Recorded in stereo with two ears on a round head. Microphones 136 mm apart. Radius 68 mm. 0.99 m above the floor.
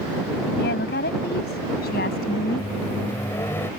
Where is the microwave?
15° left (ahead or behind).